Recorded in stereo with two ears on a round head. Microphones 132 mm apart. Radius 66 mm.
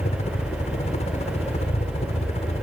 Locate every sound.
0.0 s a helicopter: 45° left (ahead or behind)